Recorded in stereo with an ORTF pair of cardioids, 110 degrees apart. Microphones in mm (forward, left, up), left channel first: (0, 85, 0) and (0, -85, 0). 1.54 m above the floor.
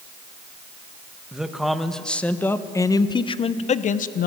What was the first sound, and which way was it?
A man speaking, 5° right.